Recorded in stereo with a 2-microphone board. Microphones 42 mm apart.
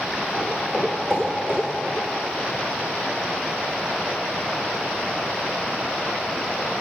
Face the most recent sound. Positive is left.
turn(degrees=-30)  # may be behind; listen again after turning